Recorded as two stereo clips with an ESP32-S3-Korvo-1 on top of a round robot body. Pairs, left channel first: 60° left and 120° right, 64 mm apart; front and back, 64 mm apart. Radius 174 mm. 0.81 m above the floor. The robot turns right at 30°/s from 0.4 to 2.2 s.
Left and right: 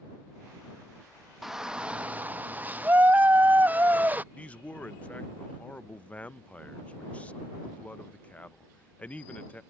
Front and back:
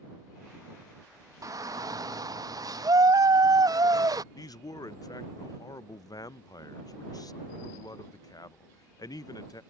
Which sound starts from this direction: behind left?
A shout, at 1.4 s.